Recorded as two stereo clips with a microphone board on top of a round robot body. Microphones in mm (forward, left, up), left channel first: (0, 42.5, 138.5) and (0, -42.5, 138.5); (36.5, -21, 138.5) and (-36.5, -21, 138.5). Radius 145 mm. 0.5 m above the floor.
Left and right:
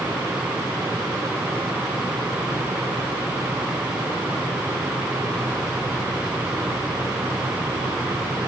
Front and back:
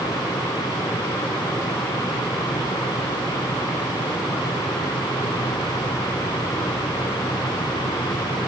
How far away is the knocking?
No knocking in this recording.